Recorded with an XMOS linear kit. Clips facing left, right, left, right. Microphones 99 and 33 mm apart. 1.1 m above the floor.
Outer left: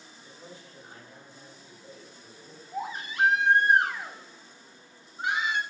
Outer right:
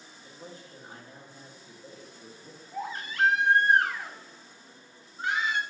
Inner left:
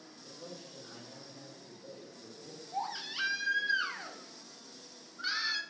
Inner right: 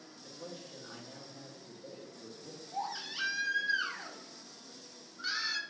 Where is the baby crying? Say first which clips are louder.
Outer left 1 dB, inner left 1 dB; 20° left (ahead or behind), 0.5 m.